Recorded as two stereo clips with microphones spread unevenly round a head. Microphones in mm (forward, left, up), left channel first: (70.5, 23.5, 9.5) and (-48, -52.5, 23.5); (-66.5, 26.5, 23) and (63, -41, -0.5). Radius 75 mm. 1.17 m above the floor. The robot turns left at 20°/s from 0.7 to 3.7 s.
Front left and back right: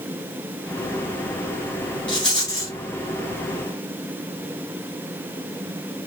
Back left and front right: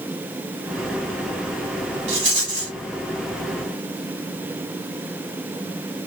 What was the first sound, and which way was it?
A rattle, 25° right.